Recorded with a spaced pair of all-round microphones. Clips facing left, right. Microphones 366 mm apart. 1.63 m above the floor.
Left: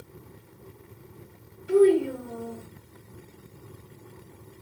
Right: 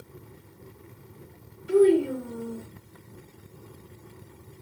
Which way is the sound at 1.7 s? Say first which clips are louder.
Even; centre (ahead or behind).